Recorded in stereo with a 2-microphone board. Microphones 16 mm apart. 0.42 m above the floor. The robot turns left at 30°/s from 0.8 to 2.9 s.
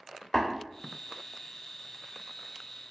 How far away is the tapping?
About 1.9 m.